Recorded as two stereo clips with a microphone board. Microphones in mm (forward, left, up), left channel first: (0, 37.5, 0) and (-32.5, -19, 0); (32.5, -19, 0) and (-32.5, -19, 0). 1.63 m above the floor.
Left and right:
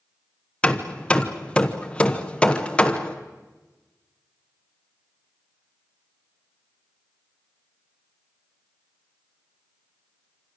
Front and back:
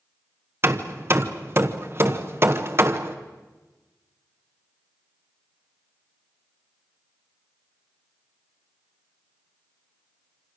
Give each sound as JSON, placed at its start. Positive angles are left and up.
{"t": 0.6, "sound": "hammering", "azimuth_deg": 130, "distance_m": 1.2}